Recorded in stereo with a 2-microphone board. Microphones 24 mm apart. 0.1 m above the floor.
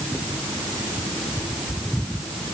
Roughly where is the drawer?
I don't hear a drawer.